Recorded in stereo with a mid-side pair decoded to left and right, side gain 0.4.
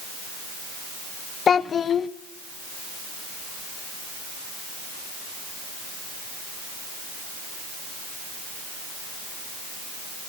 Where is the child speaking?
55° left, 0.5 m.